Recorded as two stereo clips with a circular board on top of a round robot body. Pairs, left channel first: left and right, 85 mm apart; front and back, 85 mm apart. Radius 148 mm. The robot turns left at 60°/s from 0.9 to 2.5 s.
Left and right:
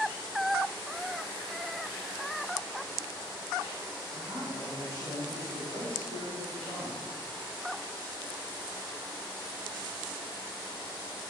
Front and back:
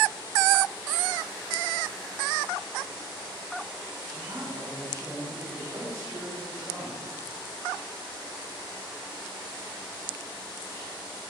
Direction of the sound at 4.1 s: 135° right.